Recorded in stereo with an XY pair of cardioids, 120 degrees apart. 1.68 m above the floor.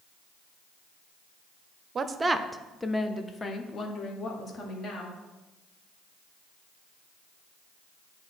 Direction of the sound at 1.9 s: 35° right.